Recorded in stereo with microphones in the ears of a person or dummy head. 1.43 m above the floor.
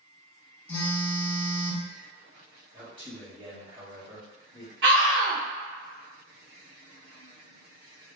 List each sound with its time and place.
0.7 s a phone buzzing: 10° left (ahead or behind), 0.6 m
2.7 s a man speaking: 20° right (ahead or behind), 1.0 m
4.8 s a scream: 60° right (ahead or behind), 0.6 m